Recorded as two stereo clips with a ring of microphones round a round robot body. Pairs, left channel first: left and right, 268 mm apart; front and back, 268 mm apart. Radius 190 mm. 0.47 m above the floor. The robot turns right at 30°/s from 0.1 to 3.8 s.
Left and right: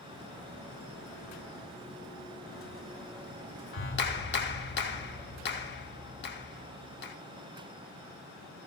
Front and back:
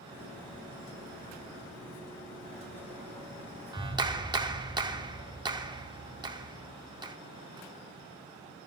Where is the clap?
110° left, 0.7 m.